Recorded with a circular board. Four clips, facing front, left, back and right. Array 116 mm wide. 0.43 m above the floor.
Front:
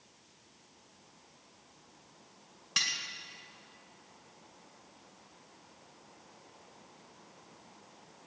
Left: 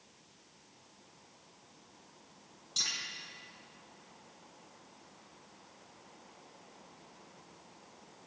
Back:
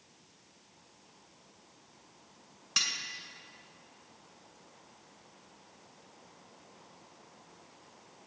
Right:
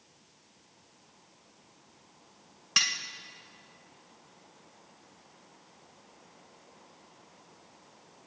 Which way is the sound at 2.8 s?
75° right.